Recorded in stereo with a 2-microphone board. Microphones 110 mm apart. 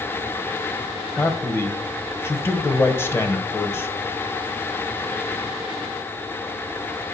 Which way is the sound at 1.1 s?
20° left (ahead or behind).